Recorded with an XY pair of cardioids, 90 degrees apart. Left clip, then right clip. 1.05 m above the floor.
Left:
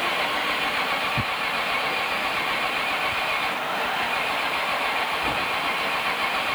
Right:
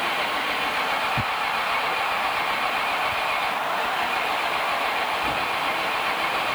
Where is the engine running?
15° left.